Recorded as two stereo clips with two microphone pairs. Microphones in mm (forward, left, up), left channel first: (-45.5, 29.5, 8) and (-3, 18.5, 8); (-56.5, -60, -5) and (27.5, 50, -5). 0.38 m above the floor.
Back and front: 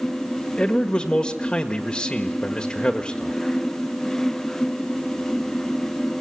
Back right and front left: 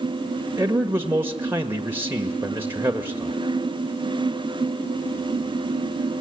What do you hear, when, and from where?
0.6 s a man speaking: 115° left, 1.6 m